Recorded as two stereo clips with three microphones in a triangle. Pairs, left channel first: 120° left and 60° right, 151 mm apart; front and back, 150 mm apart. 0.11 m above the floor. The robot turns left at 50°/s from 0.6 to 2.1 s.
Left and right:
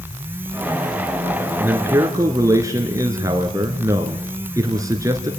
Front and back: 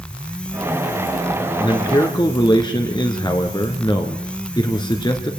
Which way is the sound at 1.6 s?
10° left.